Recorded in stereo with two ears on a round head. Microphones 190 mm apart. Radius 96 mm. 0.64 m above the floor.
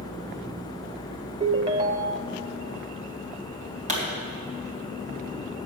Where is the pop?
35° right (ahead or behind), 3 m.